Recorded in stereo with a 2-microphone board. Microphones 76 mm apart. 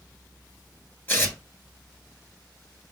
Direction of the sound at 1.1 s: 25° left (ahead or behind).